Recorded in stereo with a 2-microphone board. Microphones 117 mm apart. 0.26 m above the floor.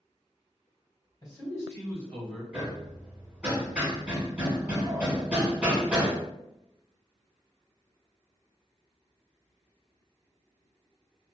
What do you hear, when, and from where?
1.2 s a man speaking: 35° left (ahead or behind), 1.7 m; by 2.4 s 10° left (ahead or behind), 1.5 m
2.5 s hammering: 10° right (ahead or behind), 1.5 m